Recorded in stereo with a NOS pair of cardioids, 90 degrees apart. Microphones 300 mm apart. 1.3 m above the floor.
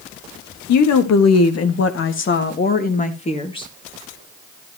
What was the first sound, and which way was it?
A woman speaking, 70° left.